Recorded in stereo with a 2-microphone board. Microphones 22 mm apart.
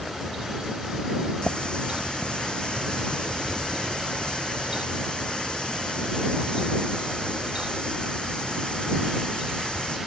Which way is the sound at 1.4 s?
50° left (ahead or behind).